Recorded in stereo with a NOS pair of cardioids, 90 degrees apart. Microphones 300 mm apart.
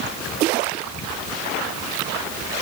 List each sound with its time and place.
Only background noise.